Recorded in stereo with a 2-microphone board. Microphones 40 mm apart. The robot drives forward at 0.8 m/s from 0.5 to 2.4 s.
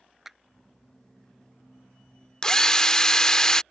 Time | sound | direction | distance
0.2 | a clap | 5° right (ahead or behind) | ?
2.4 | a drill | 15° left (ahead or behind) | ?